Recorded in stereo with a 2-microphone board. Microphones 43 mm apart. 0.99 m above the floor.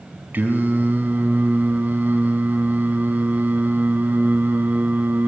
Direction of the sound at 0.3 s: 45° right (ahead or behind).